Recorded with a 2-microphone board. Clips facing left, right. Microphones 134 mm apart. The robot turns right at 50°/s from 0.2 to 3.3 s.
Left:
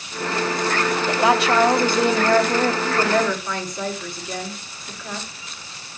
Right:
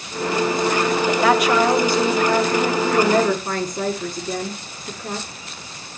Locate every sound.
1.2 s a woman speaking: 20° left, 1.2 m; by 2.7 s 100° left, 1.2 m
2.8 s a woman speaking: 25° right (ahead or behind), 2 m; by 5.3 s 45° right (ahead or behind), 2 m